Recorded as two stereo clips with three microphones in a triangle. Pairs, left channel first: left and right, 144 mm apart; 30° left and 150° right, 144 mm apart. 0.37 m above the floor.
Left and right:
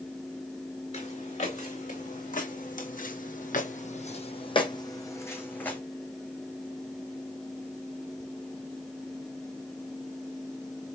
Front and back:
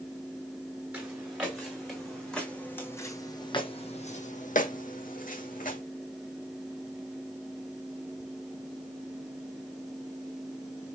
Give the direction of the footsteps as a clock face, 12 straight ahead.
8 o'clock.